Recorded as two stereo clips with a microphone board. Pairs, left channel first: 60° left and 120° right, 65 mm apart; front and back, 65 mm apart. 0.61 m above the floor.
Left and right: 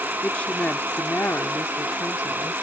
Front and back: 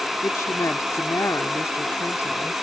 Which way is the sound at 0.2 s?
5° right.